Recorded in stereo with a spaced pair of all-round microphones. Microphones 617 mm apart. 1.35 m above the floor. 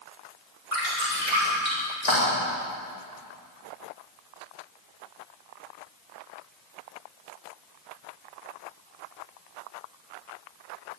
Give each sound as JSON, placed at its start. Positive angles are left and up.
{"t": 0.7, "sound": "dripping", "side_deg": 65, "distance_m": 7.0}